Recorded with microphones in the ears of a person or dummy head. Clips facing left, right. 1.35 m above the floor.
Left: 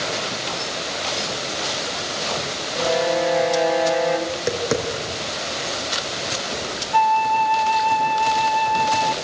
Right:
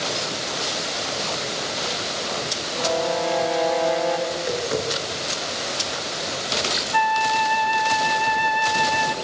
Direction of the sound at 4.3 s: 55° left (ahead or behind).